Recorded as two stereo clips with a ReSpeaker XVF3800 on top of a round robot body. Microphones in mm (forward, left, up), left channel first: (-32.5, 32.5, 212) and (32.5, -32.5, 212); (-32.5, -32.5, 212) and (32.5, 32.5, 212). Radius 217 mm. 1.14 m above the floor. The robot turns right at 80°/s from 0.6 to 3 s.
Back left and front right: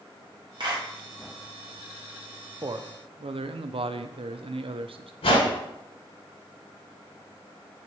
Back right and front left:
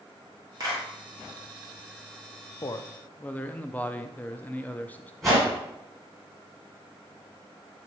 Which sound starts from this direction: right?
A man speaking, at 2.6 s.